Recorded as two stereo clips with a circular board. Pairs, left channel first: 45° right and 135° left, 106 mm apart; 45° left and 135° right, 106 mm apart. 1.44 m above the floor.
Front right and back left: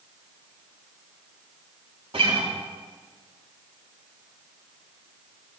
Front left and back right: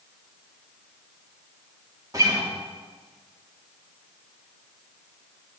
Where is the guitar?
170° left, 2.5 m.